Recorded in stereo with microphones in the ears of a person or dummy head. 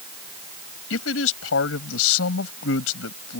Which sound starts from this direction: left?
A man speaking, at 0.9 s.